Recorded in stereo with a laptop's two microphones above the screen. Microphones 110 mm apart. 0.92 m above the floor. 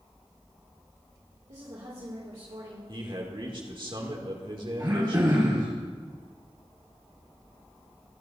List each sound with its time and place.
1.5 s a woman speaking: 65° right (ahead or behind), 2.5 m
2.9 s a man speaking: 50° right (ahead or behind), 2.5 m
4.8 s throat clearing: 40° right (ahead or behind), 3.5 m